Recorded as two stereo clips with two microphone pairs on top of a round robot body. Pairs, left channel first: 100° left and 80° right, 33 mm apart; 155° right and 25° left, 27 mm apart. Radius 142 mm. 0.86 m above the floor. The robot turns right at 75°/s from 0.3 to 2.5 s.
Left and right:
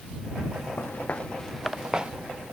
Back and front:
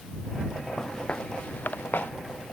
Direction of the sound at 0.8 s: 125° left.